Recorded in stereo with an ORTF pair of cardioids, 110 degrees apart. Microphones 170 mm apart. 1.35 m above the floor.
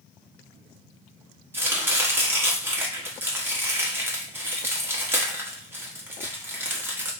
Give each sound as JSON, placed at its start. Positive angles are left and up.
{"t": 1.5, "sound": "chopping", "azimuth_deg": -15, "distance_m": 1.1}